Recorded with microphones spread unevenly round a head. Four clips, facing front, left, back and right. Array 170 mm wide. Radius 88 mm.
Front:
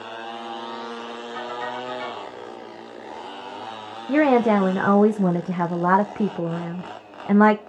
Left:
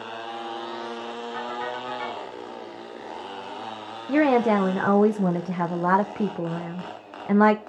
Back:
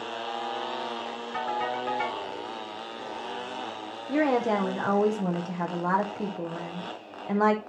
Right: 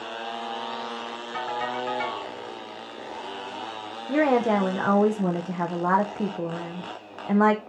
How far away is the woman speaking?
About 0.5 m.